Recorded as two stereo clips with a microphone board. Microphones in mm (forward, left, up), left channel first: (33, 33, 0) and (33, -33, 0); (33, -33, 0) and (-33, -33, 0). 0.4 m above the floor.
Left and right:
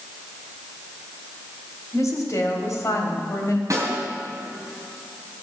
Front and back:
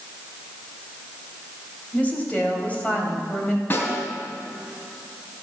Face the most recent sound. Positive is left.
turn(degrees=-55)